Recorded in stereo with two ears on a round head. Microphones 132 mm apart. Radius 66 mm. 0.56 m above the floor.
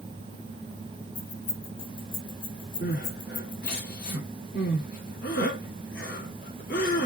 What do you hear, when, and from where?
1.1 s keys jangling: 75° left (ahead or behind), 5 m; by 3.8 s 55° left (ahead or behind), 2.5 m
2.8 s crying: 75° left (ahead or behind), 4 m